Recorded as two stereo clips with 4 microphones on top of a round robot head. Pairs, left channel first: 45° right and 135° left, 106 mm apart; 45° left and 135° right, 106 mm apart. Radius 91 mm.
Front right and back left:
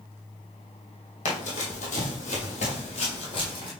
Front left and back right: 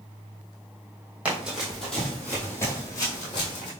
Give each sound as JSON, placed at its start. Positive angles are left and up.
{"t": 1.2, "sound": "running footsteps", "azimuth_deg": -55, "distance_m": 1.7}